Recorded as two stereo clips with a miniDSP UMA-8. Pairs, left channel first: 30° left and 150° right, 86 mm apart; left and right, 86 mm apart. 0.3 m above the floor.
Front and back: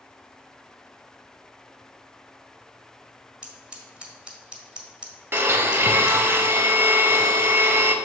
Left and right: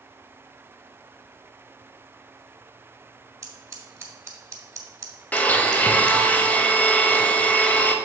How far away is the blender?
About 0.6 m.